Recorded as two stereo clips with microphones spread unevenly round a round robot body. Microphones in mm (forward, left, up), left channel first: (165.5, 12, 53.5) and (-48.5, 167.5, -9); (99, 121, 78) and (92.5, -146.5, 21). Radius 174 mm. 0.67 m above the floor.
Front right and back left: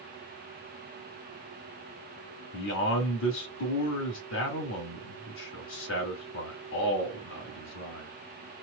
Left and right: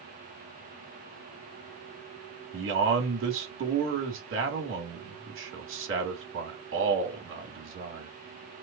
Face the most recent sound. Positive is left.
turn(degrees=-90)